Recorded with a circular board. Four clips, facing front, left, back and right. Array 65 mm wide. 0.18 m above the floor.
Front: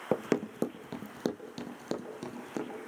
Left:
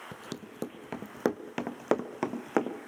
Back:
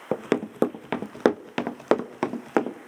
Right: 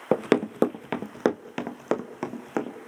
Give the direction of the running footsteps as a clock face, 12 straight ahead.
3 o'clock.